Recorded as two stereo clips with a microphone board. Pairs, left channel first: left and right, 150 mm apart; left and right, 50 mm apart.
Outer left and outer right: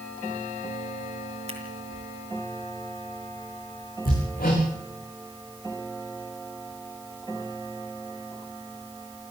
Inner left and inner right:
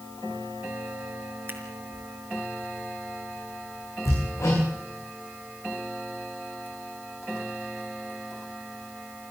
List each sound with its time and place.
1.5 s scissors: 45° right (ahead or behind), 4.5 m
4.0 s hammering: 70° left (ahead or behind), 8 m